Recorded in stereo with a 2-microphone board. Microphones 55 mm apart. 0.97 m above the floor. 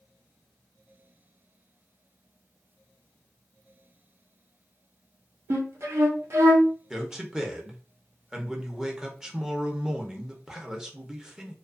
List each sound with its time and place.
5.5 s a flute: 55° right (ahead or behind), 0.7 m
6.9 s a man speaking: 10° right (ahead or behind), 0.6 m